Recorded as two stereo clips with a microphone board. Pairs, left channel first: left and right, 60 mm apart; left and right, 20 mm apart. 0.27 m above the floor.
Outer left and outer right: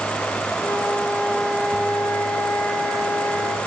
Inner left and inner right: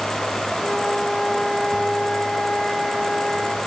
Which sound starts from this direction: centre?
A flute, at 0.6 s.